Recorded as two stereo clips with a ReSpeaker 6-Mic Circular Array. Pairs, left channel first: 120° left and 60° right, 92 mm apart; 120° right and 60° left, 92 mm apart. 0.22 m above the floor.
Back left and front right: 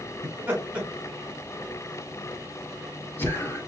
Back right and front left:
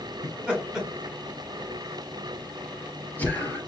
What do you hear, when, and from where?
0.2 s laughter: 10° right, 1.2 m; by 3.6 s 175° left, 1.5 m